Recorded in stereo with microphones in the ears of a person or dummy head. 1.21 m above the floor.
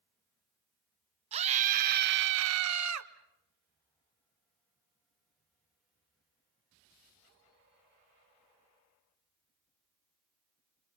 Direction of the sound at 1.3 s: 35° right (ahead or behind).